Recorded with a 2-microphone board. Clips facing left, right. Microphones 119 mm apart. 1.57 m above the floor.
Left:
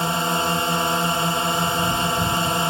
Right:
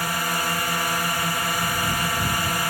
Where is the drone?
25° left (ahead or behind).